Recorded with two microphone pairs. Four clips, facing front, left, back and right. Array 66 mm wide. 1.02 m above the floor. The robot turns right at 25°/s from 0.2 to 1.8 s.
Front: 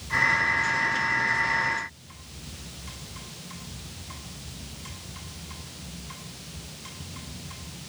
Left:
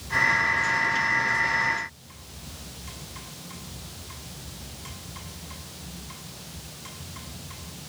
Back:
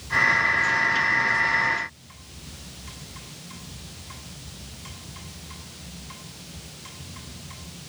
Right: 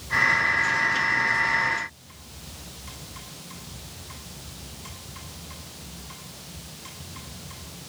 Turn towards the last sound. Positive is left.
No sound to turn to.